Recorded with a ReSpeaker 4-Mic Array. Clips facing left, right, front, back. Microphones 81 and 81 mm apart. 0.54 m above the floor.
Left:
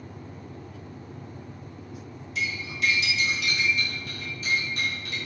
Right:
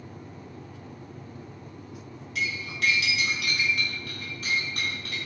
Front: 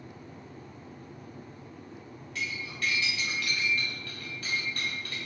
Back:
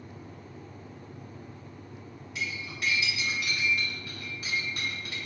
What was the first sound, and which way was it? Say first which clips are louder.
Cutlery clinking: even, even; 105° right.